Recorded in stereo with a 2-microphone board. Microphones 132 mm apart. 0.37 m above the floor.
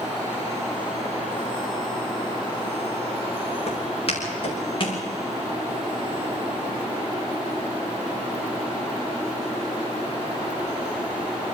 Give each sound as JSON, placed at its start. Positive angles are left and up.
{"t": 3.7, "sound": "footsteps", "side_deg": 50, "distance_m": 6.5}